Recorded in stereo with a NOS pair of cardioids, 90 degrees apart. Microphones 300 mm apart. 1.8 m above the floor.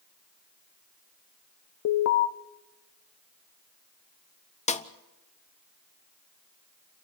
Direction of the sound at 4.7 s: 25° left.